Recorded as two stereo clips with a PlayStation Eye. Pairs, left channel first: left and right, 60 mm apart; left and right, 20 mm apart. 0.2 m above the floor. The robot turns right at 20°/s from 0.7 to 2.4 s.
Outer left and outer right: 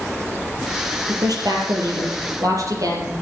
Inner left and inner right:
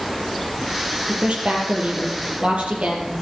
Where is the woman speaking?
75° right (ahead or behind), 5 m; by 3.1 s 65° right (ahead or behind), 5 m.